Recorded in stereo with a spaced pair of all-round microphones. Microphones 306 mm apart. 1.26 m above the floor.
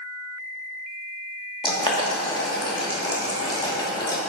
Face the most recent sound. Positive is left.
turn(degrees=15)  # may be behind; listen again after turning